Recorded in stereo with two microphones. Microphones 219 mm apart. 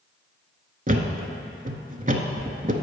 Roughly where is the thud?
Right.